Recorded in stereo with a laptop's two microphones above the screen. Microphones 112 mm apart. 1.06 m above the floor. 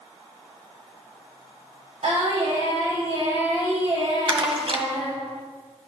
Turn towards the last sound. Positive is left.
turn(degrees=-50)  # may be behind; listen again after turning